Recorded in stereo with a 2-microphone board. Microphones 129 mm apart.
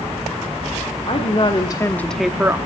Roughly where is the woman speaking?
Left.